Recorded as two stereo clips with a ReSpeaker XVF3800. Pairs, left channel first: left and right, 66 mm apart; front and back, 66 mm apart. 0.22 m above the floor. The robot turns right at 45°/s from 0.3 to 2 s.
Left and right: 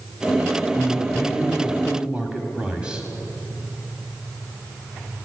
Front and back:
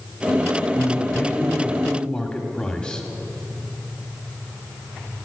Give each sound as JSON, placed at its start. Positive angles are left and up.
{"t": 0.8, "sound": "a man speaking", "azimuth_deg": -100, "distance_m": 1.1}